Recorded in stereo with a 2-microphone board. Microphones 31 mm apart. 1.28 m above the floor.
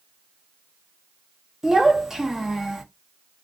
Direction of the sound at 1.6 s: 15° right (ahead or behind).